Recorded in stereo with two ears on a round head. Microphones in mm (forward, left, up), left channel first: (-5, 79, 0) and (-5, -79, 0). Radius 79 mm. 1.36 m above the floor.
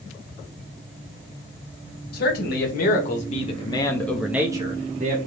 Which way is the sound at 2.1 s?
55° left (ahead or behind).